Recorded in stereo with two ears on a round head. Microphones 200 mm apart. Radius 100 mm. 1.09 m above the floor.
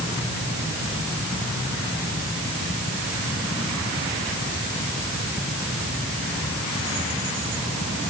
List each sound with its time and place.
Only background noise.